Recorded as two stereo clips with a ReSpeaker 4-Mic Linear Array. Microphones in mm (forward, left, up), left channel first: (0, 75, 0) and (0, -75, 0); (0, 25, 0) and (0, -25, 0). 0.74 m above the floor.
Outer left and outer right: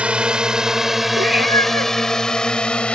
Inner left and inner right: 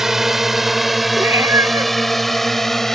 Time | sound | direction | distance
0.0 | a drone | 10° right (ahead or behind) | ?
1.2 | a cat meowing | 85° right | ?